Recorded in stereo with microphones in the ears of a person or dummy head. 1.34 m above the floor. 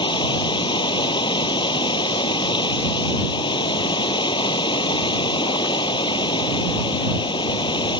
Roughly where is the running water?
Left.